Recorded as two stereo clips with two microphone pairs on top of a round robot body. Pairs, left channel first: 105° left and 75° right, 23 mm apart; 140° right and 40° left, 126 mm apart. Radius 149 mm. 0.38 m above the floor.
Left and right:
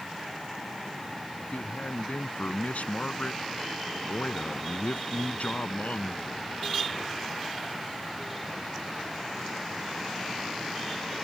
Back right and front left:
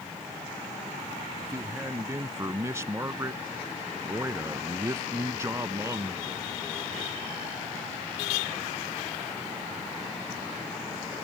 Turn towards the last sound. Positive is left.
turn(degrees=105)